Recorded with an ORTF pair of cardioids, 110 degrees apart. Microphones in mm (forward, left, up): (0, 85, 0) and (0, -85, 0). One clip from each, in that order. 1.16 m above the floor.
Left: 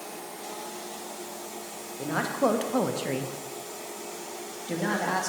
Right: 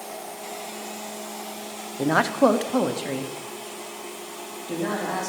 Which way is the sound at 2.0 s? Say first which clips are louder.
Right 7 dB; 55° right.